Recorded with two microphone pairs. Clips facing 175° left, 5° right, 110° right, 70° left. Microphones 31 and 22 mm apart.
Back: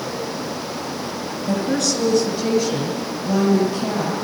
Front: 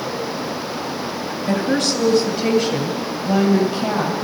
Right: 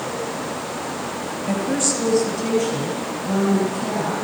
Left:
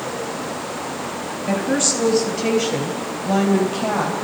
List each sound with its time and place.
1.5 s a woman speaking: 35° left, 1.7 m; by 4.1 s 65° left, 3.5 m